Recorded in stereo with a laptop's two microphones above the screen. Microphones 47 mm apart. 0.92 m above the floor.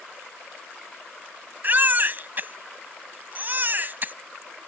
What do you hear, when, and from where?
1.6 s a baby crying: 40° right (ahead or behind)